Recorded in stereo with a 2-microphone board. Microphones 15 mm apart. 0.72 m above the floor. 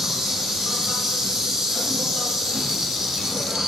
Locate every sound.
0.0 s an insect: 60° right (ahead or behind), 1.9 m